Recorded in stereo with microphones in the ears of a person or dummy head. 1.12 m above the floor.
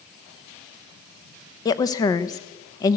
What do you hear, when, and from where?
1.6 s a woman speaking: 20° left (ahead or behind), 0.7 m